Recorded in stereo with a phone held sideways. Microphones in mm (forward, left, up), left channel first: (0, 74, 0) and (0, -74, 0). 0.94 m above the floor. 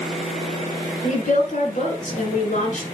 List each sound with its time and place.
1.0 s a woman speaking: 65° left (ahead or behind), 5 m